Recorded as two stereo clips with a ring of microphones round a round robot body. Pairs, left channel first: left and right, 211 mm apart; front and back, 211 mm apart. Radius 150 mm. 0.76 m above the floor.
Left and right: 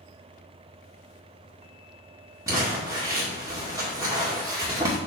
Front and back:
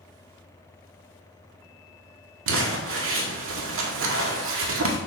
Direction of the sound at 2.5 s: 165° right.